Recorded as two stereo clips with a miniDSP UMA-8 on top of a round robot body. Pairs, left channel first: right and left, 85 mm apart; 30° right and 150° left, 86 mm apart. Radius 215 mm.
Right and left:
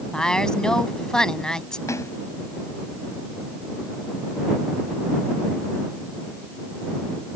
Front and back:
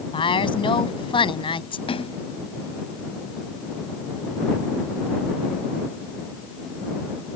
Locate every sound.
0.1 s a woman speaking: 10° right
1.9 s a splash: 35° right